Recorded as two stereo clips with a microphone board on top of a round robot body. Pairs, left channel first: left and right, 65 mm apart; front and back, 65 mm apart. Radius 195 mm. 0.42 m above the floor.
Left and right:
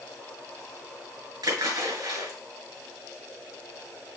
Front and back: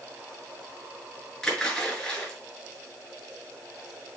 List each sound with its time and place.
1.4 s a splash: 80° right, 2.5 m